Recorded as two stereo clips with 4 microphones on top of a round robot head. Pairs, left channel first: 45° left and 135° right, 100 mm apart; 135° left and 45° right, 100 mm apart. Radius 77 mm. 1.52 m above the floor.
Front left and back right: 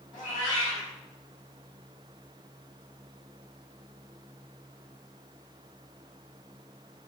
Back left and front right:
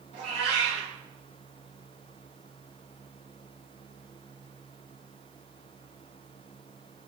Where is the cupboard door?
I don't hear a cupboard door.